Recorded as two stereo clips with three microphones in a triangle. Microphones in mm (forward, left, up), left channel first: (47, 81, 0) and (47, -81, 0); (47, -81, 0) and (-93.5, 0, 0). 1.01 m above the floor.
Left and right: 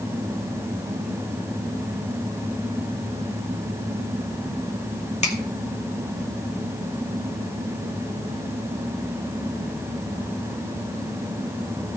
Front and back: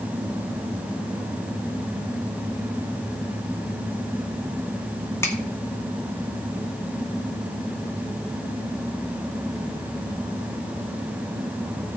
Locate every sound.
5.2 s a finger snap: 45° left, 2 m